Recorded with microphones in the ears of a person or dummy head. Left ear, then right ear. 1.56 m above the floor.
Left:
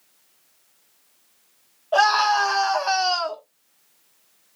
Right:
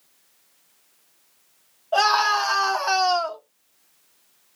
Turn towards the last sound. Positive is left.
turn(degrees=10)  # may be behind; listen again after turning